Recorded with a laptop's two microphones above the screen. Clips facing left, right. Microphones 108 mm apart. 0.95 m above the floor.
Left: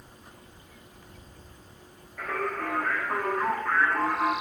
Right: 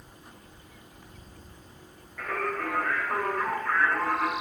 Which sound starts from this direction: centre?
Singing, at 2.2 s.